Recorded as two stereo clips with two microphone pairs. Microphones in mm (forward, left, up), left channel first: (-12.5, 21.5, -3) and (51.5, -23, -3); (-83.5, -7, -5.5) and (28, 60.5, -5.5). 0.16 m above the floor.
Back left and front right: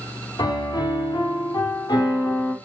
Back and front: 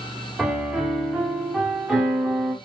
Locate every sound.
0.4 s a piano: 120° left, 6 m